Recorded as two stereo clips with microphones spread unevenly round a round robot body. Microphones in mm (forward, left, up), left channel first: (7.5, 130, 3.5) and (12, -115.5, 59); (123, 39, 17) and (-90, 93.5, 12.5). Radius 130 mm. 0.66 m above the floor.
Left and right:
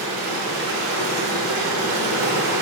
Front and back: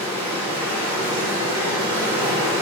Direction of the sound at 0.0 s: 125° right.